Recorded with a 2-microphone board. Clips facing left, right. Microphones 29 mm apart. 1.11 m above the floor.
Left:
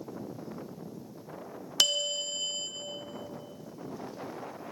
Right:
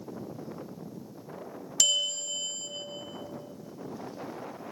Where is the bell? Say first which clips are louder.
Even; 35° left (ahead or behind), 0.8 m.